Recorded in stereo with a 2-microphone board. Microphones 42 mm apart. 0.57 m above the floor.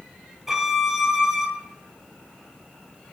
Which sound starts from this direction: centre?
A violin, at 0.5 s.